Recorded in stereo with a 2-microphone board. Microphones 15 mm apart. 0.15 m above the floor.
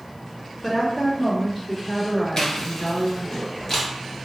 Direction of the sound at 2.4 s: 30° left (ahead or behind).